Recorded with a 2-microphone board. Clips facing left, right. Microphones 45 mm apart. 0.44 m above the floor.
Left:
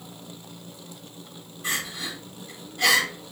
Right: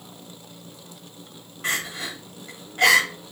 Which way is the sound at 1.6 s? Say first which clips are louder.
Right 3 dB; 55° right (ahead or behind).